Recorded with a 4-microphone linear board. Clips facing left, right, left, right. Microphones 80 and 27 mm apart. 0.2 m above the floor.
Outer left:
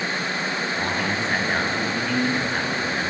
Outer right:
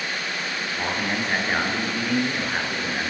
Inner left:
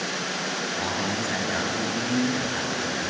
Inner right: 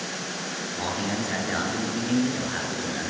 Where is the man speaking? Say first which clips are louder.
Outer right 2 dB, inner right 2 dB; 10° right (ahead or behind), 3.5 m.